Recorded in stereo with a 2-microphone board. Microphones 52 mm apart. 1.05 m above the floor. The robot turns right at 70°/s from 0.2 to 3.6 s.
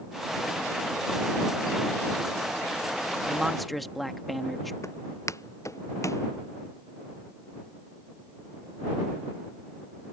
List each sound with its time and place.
3.3 s a man speaking: 20° right (ahead or behind); by 4.7 s centre (ahead or behind)
4.8 s footsteps: 70° left (ahead or behind)